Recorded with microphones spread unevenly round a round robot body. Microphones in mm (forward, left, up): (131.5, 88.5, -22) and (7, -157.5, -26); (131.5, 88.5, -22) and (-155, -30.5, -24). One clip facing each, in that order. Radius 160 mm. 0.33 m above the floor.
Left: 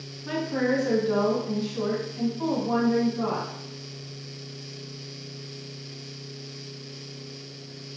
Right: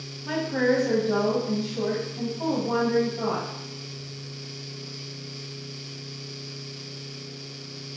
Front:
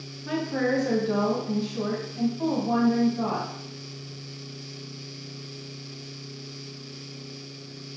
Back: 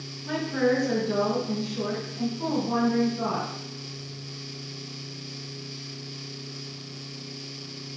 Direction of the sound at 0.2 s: Straight ahead.